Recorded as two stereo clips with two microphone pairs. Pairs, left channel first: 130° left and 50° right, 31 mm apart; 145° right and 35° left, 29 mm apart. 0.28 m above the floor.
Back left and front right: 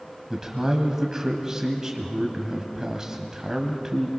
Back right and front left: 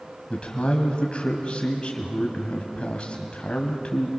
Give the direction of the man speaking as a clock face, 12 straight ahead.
4 o'clock.